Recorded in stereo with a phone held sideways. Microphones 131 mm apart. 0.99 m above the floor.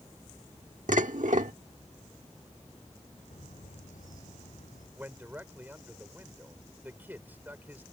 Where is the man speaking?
15° right (ahead or behind).